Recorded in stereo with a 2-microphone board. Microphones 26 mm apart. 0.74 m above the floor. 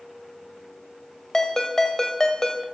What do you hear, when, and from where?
1.3 s a ringtone: 25° left (ahead or behind), 2.5 m